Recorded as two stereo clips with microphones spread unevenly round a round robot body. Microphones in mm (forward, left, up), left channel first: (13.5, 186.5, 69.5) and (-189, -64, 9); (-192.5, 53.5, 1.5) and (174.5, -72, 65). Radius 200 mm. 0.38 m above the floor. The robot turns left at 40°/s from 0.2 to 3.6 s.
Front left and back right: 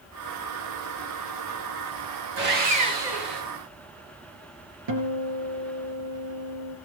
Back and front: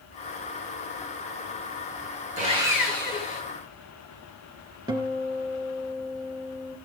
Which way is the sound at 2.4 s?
90° right.